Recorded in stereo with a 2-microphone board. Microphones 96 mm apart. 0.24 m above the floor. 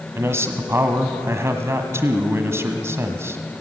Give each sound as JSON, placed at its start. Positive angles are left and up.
{"t": 0.1, "sound": "a man speaking", "side_deg": -25, "distance_m": 1.6}